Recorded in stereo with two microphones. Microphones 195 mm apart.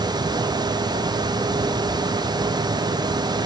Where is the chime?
No chime in this recording.